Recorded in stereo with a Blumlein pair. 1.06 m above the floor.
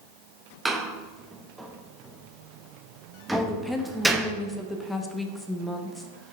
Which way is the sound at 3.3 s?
5° left.